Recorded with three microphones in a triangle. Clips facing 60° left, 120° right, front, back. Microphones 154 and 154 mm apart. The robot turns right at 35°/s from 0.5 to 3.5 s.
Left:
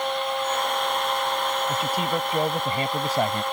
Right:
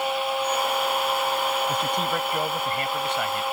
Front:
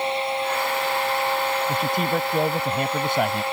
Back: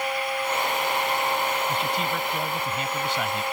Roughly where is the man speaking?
Ahead right.